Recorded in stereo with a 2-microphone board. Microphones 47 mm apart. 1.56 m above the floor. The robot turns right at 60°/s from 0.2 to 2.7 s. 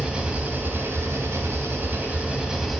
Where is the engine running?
155° right, 3 m; by 2.8 s 5° right, 3 m.